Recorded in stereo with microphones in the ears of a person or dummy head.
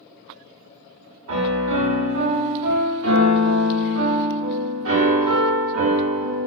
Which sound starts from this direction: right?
A piano, at 1.3 s.